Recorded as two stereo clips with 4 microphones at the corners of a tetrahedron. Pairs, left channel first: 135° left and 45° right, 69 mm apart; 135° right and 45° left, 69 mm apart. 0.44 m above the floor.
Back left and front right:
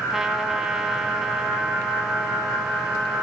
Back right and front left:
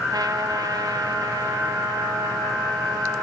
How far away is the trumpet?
About 1.5 m.